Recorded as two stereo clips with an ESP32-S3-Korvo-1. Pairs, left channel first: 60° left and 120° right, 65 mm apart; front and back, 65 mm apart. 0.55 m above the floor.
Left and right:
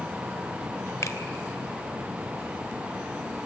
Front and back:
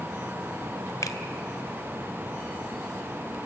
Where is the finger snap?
25° left, 1.6 m.